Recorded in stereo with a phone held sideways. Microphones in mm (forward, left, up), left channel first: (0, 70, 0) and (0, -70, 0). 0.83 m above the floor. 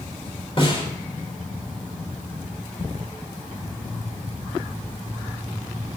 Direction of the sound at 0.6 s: 40° left (ahead or behind).